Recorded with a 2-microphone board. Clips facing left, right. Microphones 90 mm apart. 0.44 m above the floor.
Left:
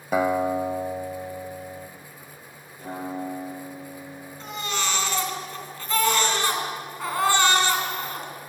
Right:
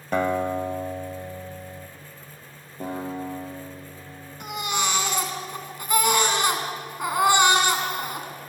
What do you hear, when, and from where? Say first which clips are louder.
0.1 s a guitar: left 1 dB; 5° left (ahead or behind), 1.2 m
2.8 s a guitar: right 1 dB; 40° right (ahead or behind), 9.5 m
4.4 s a baby crying: right 2 dB; 15° right (ahead or behind), 3.5 m